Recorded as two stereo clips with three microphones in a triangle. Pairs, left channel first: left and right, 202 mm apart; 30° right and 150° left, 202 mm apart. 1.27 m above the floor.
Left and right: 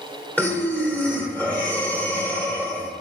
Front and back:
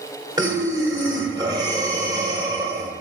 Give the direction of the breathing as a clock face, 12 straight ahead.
7 o'clock.